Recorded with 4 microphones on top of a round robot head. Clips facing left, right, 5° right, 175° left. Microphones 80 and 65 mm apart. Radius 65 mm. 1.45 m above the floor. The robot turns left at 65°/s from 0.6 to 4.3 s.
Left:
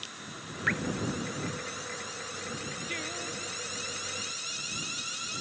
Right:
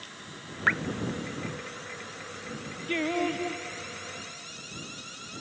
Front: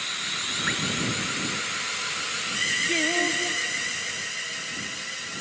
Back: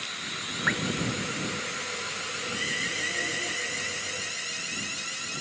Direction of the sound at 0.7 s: 125° right.